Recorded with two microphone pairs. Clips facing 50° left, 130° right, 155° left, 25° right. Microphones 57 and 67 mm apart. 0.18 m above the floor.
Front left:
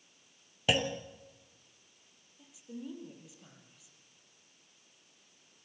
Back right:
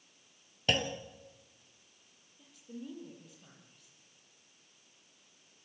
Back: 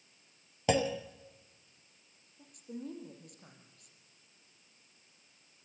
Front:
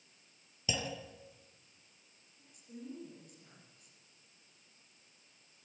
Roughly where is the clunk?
Behind left.